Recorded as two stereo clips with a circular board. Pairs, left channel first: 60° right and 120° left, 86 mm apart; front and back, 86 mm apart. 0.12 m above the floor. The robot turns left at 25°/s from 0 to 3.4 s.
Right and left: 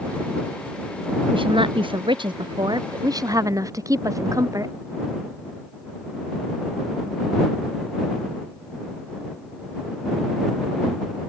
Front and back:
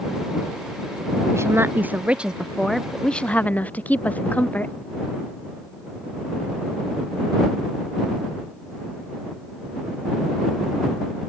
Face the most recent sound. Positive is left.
turn(degrees=70)